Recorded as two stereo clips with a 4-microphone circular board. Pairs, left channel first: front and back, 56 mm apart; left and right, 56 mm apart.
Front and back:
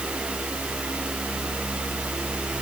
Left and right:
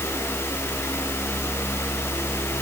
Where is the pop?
No pop in this recording.